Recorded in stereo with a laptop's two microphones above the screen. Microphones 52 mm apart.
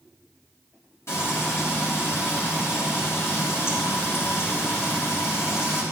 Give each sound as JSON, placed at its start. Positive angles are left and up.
{"t": 1.1, "sound": "frying", "side_deg": 55, "distance_m": 5.5}